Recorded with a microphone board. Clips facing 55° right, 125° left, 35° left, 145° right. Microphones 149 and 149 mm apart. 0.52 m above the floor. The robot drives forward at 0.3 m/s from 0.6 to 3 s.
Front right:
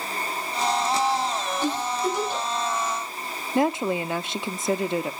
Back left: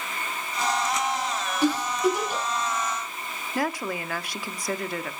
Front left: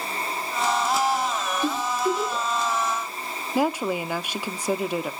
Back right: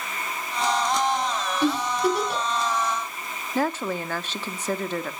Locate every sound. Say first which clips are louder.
1.6 s a giggle: back left 5 dB, back right 3 dB; 155° right, 5 m; by 2.4 s 160° right, 5 m
3.5 s a woman speaking: front right 6 dB, front left 2 dB; 30° right, 0.6 m